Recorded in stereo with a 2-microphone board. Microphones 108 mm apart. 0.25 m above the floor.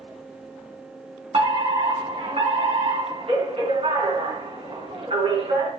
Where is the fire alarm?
55° right (ahead or behind), 4 m.